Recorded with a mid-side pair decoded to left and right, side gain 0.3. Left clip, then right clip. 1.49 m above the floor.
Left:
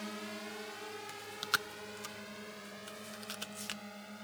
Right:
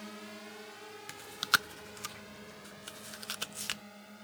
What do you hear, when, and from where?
0.0 s a drone: 35° left; by 4.2 s 30° left
1.1 s chewing: 60° right